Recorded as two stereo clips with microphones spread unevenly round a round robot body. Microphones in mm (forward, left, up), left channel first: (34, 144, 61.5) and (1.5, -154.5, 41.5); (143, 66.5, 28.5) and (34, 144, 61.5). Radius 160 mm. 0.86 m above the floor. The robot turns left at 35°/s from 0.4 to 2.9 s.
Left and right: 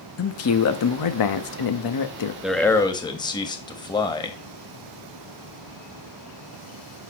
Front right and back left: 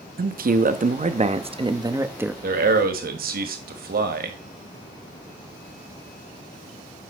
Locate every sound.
0.2 s a man speaking: 130° left, 1.2 m; by 2.3 s 60° left, 1.2 m
2.4 s a man speaking: straight behind, 1.5 m; by 4.4 s 160° left, 1.5 m